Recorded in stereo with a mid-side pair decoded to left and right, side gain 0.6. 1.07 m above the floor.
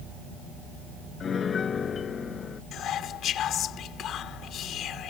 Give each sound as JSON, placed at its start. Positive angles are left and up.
{"t": 1.2, "sound": "a piano", "azimuth_deg": 35}
{"t": 2.7, "sound": "whispering", "azimuth_deg": 55}